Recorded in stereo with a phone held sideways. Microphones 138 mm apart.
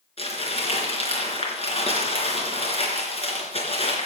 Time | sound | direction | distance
0.2 | crumpling | 45° left (ahead or behind) | 3.5 m